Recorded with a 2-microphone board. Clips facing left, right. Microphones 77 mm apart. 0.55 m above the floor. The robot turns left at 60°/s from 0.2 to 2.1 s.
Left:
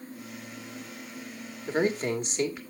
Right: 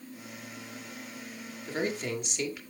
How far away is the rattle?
I don't hear a rattle.